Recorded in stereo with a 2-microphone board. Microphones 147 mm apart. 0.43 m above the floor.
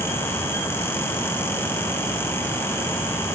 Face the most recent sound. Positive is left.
No sound to turn to.